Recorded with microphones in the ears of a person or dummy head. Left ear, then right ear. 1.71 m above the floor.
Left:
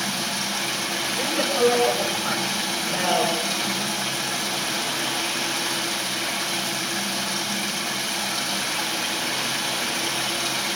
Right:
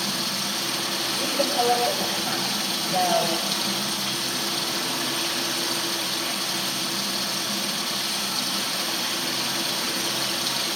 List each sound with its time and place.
0.0 s running water: 50° left (ahead or behind), 7 m
1.2 s a woman speaking: 40° left (ahead or behind), 8.5 m